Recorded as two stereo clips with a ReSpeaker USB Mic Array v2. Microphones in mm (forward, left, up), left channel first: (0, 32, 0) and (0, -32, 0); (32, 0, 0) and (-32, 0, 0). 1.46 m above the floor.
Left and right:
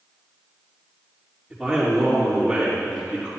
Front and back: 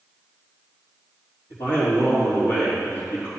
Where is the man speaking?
Straight ahead, 3.5 m.